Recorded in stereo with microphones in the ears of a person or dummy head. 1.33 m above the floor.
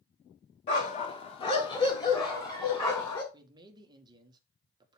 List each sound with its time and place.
0.7 s a dog barking: 35° left (ahead or behind), 1.1 m; by 3.2 s 20° left (ahead or behind), 2 m
3.3 s a man speaking: 25° right (ahead or behind), 1.3 m